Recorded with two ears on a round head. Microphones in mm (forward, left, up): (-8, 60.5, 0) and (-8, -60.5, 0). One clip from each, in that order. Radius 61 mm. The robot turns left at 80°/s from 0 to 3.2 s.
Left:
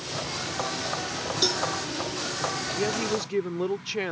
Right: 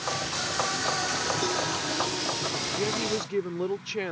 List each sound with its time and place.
1.4 s a cowbell: 65° left (ahead or behind); by 1.7 s 45° left (ahead or behind)
2.8 s a woman speaking: 25° left (ahead or behind); by 4.1 s 10° left (ahead or behind)